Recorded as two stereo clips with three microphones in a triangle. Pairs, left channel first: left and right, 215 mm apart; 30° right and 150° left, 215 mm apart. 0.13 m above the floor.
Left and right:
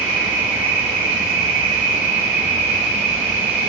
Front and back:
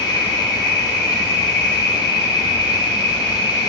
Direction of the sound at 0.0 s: 80° right.